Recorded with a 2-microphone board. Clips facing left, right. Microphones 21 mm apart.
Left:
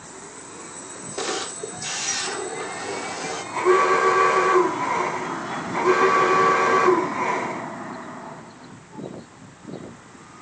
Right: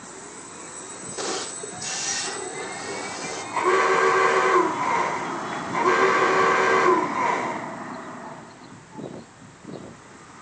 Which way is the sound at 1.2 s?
20° left (ahead or behind).